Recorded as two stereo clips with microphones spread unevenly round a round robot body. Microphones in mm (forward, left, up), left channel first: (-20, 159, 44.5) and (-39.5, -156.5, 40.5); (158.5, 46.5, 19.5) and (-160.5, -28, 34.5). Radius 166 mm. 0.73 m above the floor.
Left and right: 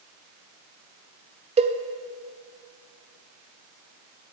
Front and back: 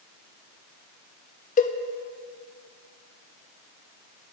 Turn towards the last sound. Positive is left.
turn(degrees=-35)